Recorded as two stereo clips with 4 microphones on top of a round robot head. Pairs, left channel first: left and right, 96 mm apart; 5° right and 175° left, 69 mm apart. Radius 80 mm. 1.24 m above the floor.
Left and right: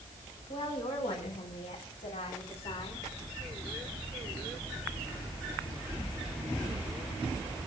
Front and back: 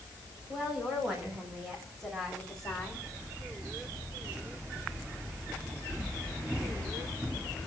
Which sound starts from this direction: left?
A woman speaking, at 0.5 s.